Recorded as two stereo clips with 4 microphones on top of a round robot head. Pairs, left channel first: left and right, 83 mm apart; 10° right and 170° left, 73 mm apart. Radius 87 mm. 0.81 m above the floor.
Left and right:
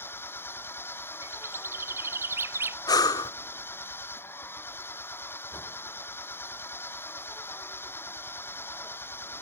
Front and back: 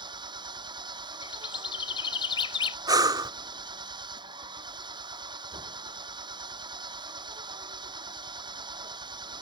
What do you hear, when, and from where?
0.0 s an engine running: 155° left
1.2 s a bird: 25° right
2.9 s breathing: 135° left